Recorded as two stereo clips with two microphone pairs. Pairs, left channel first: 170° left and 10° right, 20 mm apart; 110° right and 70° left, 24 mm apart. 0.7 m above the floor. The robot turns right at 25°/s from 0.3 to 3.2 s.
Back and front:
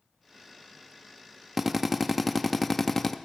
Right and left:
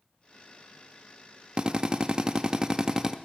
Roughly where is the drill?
Left.